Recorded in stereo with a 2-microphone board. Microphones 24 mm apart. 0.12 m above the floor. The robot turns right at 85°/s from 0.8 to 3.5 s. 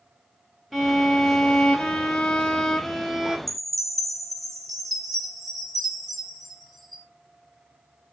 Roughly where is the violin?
Ahead.